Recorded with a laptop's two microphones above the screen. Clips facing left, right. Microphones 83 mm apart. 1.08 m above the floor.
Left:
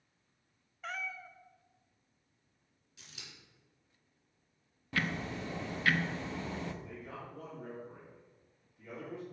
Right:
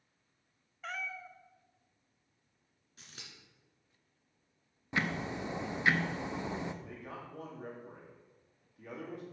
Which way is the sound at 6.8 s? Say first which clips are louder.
Even; 75° right (ahead or behind).